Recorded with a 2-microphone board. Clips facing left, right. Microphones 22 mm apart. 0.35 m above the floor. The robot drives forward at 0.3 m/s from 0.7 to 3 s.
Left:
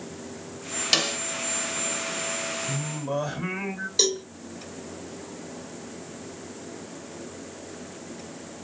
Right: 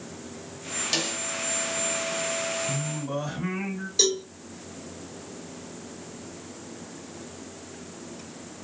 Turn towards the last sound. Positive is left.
turn(degrees=15)  # may be behind; listen again after turning